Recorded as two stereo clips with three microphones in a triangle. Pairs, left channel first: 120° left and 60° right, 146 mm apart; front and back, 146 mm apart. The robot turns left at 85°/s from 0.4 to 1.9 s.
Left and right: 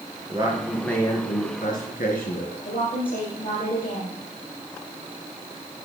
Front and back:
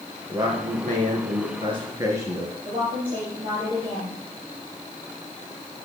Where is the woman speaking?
125° left, 6.5 m.